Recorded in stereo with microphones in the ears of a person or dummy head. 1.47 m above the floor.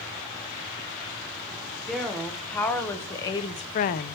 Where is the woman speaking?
5° right (ahead or behind), 1.5 m; by 4.2 s 60° left (ahead or behind), 0.5 m.